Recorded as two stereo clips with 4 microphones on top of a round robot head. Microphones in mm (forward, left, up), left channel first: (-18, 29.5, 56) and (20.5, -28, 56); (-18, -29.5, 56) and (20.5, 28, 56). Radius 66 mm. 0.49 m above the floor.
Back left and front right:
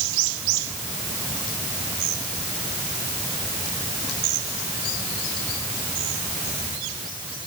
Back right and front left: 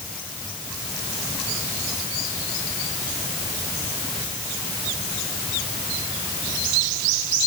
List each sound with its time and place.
Only background noise.